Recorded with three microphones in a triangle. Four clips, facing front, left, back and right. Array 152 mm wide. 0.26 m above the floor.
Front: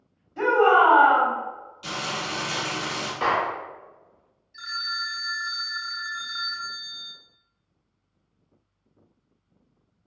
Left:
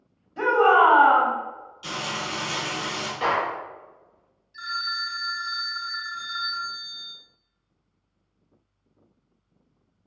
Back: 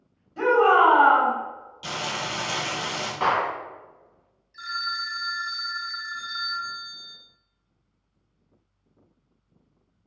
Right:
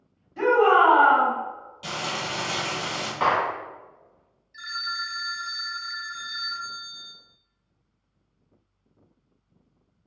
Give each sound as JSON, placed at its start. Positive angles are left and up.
{"t": 0.4, "sound": "a shout", "azimuth_deg": 105, "distance_m": 1.6}
{"t": 1.8, "sound": "frying", "azimuth_deg": -135, "distance_m": 1.5}
{"t": 3.2, "sound": "a clap", "azimuth_deg": -120, "distance_m": 1.4}
{"t": 4.5, "sound": "a phone ringing", "azimuth_deg": 85, "distance_m": 0.5}